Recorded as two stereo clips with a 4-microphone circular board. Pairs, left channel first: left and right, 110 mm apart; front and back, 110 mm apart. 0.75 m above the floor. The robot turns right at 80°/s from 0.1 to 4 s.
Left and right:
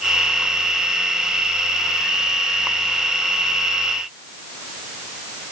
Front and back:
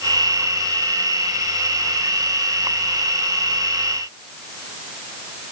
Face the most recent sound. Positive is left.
No sound to turn to.